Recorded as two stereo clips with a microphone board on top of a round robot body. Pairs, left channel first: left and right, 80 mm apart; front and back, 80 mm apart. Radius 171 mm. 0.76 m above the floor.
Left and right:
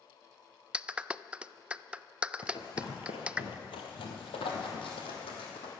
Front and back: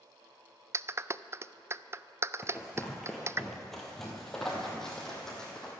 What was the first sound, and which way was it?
A clap, 155° right.